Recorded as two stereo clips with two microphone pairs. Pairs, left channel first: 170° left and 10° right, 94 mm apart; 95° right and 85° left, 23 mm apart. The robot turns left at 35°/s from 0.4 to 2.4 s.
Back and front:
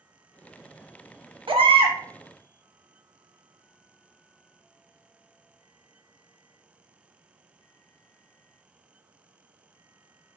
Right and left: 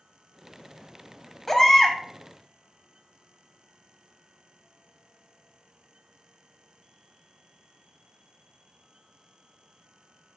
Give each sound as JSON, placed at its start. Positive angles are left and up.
{"t": 1.5, "sound": "a baby crying", "azimuth_deg": -15, "distance_m": 0.5}